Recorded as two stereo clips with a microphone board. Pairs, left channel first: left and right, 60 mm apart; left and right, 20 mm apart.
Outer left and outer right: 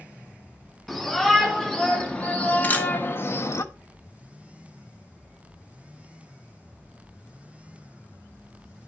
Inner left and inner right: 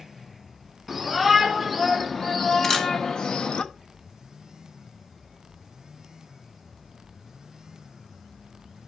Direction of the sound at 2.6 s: 25° left (ahead or behind).